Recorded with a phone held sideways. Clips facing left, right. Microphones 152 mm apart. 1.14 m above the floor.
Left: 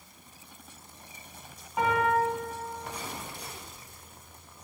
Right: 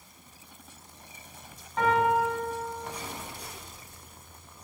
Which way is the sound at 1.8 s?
10° left (ahead or behind).